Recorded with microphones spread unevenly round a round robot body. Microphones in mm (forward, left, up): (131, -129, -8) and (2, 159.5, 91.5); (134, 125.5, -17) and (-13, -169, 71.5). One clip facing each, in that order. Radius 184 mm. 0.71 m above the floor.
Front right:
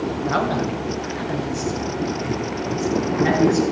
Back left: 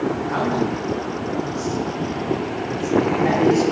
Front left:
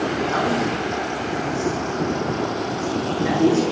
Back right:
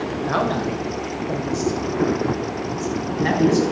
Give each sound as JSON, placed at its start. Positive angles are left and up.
{"t": 0.2, "sound": "a man speaking", "azimuth_deg": -90, "distance_m": 3.0}